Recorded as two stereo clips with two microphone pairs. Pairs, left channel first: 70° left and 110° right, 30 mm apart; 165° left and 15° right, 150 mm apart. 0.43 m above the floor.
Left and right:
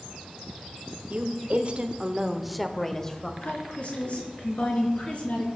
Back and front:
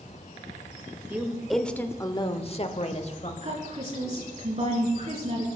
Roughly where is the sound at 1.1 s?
Right.